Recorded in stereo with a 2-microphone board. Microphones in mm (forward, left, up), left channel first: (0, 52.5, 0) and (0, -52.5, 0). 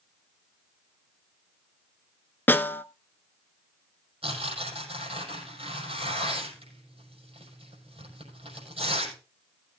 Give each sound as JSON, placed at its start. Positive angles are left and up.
{"t": 2.5, "sound": "a snare drum", "side_deg": 20, "distance_m": 0.6}
{"t": 4.2, "sound": "tearing paper", "side_deg": -70, "distance_m": 6.0}